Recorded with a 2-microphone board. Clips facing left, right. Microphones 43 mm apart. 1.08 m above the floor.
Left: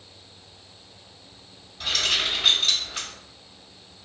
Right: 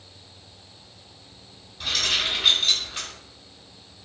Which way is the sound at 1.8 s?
Centre (ahead or behind).